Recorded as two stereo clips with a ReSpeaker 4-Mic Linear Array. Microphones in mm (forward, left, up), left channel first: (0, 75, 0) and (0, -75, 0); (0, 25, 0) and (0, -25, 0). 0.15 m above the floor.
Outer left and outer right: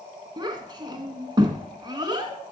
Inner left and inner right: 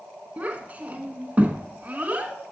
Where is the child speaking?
30° right (ahead or behind), 0.9 m.